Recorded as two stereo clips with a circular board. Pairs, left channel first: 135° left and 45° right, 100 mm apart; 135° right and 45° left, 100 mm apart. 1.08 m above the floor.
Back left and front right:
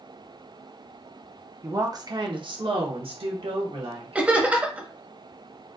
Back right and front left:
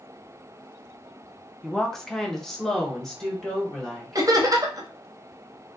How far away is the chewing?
No chewing in this recording.